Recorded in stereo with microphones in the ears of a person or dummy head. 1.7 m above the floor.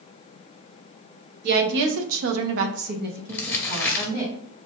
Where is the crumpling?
10° left (ahead or behind), 0.6 m.